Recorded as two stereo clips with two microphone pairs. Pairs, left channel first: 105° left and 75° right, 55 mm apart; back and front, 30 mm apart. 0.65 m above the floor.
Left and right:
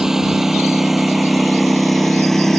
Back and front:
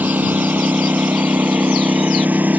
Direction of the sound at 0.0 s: 5° left.